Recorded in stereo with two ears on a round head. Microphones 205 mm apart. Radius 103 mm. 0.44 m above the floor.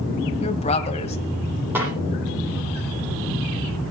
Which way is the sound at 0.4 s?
30° left (ahead or behind).